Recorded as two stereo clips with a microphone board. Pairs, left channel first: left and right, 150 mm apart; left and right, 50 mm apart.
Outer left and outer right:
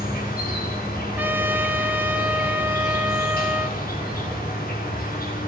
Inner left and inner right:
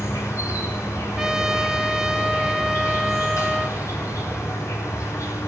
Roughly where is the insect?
Left.